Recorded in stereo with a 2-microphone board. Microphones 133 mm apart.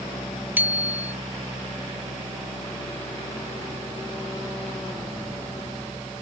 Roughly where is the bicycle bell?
Centre.